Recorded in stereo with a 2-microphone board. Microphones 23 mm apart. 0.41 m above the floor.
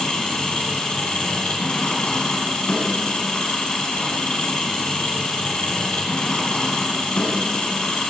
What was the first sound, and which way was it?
An engine running, 50° left (ahead or behind).